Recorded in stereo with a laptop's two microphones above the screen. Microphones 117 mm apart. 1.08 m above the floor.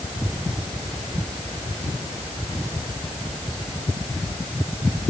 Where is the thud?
No thud in this recording.